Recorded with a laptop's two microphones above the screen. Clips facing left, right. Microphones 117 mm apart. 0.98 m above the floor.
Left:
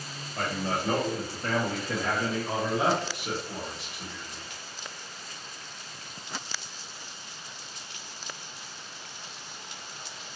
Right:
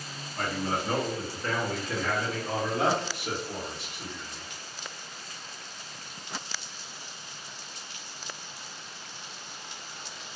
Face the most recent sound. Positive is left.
turn(degrees=-35)  # may be behind; listen again after turning